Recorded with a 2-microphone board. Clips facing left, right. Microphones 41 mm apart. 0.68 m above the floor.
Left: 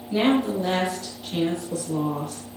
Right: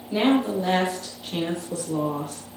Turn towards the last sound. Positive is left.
turn(degrees=-15)  # may be behind; listen again after turning